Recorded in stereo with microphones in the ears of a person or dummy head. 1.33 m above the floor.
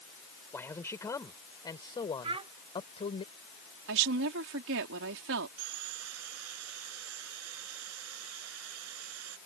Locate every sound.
0.5 s a man speaking: 15° left (ahead or behind); by 3.2 s 30° left (ahead or behind)
2.2 s a child speaking: 30° right (ahead or behind)
3.9 s a woman speaking: 70° right (ahead or behind)
5.6 s sawing: 75° right (ahead or behind)